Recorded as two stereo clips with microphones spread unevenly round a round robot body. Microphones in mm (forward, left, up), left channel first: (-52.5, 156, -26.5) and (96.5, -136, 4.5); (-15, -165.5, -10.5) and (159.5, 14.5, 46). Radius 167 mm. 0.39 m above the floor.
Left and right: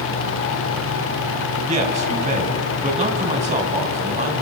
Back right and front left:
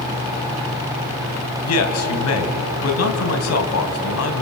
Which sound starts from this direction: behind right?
A man speaking, at 1.6 s.